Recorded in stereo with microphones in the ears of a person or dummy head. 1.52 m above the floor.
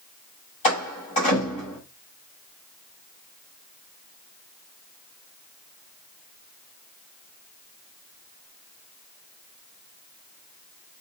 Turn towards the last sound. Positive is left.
turn(degrees=45)  # may be behind; listen again after turning